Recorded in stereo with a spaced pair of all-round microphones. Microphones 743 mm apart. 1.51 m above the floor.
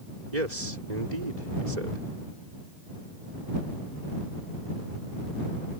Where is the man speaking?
65° right (ahead or behind).